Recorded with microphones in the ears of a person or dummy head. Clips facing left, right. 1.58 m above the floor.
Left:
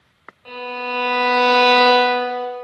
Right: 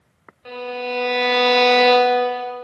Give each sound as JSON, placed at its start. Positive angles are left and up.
{"t": 0.5, "sound": "a violin", "side_deg": -20, "distance_m": 0.9}